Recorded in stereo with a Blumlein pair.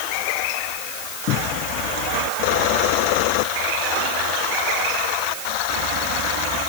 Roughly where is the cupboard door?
Ahead left.